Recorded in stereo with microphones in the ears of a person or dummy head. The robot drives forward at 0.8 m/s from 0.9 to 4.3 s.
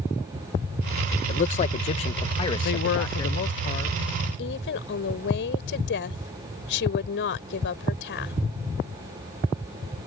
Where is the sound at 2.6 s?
70° left (ahead or behind); by 4.0 s 40° left (ahead or behind).